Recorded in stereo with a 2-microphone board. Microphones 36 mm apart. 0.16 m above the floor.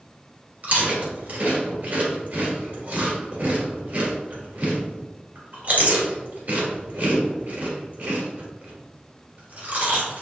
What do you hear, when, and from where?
0.6 s chewing: 45° right (ahead or behind), 2 m